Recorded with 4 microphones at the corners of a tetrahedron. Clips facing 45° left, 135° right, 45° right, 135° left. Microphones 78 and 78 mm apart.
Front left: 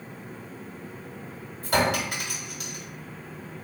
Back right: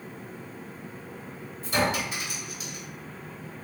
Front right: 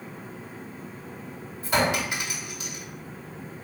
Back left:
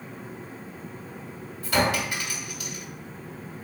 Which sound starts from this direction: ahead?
A clink, at 1.6 s.